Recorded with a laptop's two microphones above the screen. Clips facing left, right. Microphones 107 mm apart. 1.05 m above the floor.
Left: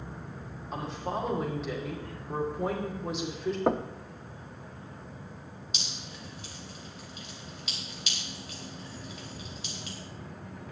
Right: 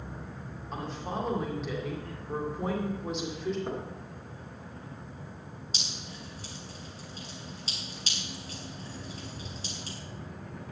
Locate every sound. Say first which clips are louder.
0.7 s a woman speaking: left 2 dB; centre (ahead or behind), 2.5 m
3.7 s knocking: left 8 dB; 75° left (ahead or behind), 0.7 m
5.7 s dripping: right 1 dB; 35° right (ahead or behind), 3 m